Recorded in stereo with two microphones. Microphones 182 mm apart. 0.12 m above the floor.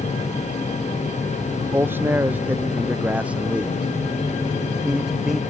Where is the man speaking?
10° right (ahead or behind); by 5.4 s centre (ahead or behind).